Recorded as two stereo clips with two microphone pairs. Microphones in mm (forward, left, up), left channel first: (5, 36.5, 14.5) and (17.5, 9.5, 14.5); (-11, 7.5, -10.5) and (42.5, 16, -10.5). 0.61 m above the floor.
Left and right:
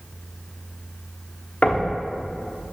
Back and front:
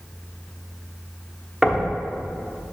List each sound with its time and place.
1.6 s knocking: 80° left, 0.8 m